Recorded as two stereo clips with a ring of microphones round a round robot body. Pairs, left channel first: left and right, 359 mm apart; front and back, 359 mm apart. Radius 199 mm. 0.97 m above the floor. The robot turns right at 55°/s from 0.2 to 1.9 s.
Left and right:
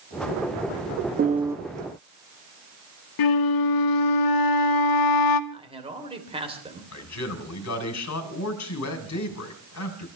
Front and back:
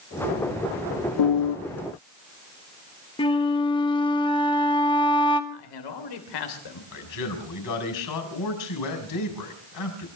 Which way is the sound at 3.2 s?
75° left.